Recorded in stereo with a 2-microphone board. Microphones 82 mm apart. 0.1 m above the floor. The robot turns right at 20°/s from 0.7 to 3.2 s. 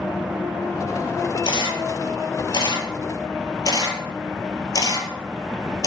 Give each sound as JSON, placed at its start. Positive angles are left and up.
{"t": 1.4, "sound": "a camera shutter", "side_deg": 65, "distance_m": 0.5}